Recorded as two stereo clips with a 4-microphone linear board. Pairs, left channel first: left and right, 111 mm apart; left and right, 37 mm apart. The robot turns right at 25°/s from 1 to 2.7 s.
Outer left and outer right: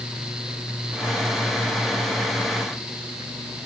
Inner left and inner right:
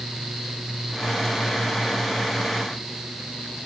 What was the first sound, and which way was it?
Only background noise.